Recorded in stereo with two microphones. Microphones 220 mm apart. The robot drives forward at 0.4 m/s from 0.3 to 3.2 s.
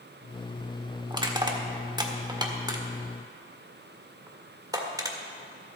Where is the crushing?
20° right (ahead or behind), 1.1 m; by 5.2 s 15° right (ahead or behind), 1.4 m.